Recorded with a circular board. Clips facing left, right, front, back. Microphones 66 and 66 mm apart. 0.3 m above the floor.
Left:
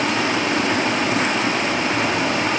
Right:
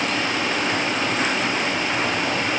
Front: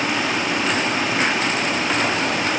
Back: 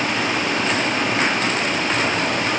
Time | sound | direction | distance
0.0 | running water | 85° left | 6.5 m